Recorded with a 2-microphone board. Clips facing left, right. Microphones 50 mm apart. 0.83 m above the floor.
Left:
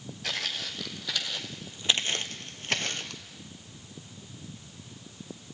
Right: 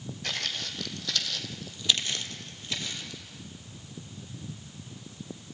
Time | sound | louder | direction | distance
0.2 | footsteps | left 1 dB | 5° left (ahead or behind) | 3 m